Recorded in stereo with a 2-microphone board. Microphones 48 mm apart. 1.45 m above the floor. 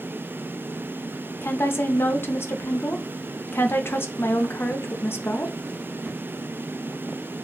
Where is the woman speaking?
55° left (ahead or behind), 0.6 m.